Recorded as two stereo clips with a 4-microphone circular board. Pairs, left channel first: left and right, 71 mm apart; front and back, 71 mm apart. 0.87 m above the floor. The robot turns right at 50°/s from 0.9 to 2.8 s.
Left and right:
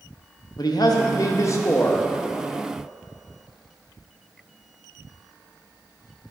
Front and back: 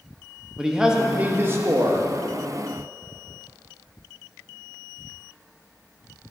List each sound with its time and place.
0.6 s a man speaking: 100° left, 0.8 m; by 2.1 s 160° left, 0.8 m